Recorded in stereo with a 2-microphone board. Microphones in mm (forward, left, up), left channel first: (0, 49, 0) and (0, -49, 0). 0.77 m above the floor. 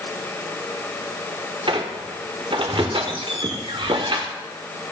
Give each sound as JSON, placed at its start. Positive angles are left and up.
{"t": 1.7, "sound": "a squeak", "side_deg": -60, "distance_m": 0.6}